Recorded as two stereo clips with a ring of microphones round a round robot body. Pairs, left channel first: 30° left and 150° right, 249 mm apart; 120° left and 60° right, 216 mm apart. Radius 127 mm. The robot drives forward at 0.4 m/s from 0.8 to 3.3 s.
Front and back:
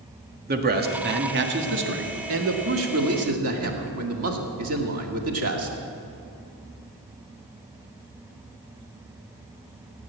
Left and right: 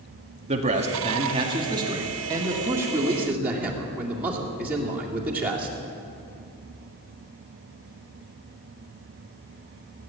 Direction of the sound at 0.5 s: 115° right.